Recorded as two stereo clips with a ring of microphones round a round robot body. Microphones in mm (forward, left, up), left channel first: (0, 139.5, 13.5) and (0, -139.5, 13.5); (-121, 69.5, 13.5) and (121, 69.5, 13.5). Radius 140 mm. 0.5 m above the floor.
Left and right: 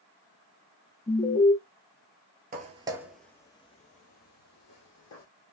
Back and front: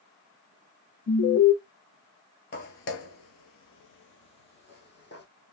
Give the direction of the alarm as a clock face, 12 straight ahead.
7 o'clock.